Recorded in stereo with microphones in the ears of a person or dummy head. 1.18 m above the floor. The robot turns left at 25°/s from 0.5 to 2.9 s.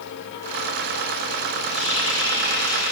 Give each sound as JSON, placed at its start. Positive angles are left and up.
{"t": 1.7, "sound": "a running tap", "azimuth_deg": 155, "distance_m": 5.5}